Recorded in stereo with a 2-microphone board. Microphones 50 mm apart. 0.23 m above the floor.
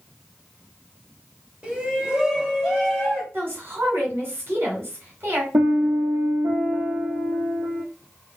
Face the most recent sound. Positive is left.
turn(degrees=-85)